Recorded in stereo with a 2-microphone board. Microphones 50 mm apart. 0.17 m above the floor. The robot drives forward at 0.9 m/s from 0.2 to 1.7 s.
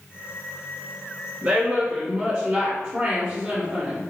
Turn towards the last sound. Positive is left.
turn(degrees=-15)  # may be behind; listen again after turning